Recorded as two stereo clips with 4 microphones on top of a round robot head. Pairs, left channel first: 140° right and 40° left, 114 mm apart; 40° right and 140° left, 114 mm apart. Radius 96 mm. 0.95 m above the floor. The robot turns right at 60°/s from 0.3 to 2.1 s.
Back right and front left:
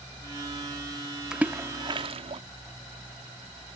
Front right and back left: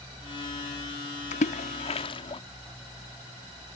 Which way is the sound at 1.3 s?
45° right.